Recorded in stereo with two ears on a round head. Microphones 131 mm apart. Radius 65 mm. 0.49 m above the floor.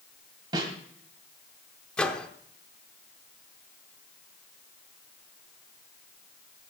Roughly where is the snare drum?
Right.